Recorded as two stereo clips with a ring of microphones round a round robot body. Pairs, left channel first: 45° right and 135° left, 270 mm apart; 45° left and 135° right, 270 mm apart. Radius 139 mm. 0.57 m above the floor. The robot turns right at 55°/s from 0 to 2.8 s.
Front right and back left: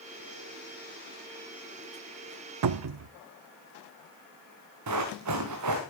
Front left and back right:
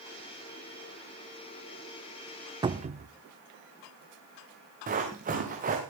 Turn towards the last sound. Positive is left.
turn(degrees=165)